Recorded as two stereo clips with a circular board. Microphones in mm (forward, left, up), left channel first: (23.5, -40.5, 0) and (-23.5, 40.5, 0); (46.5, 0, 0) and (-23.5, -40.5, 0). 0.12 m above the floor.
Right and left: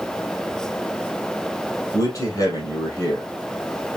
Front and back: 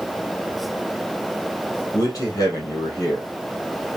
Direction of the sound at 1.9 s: 10° right.